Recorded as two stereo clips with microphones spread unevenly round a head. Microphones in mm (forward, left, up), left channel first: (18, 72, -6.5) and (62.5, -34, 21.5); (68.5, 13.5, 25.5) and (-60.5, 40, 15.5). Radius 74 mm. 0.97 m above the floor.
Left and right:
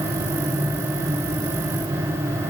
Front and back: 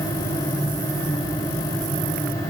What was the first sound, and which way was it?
Only background noise.